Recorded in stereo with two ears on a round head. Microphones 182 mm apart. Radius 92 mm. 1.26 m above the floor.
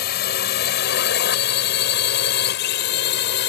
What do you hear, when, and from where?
0.0 s a drone: 50° left (ahead or behind); by 3.5 s 55° left (ahead or behind)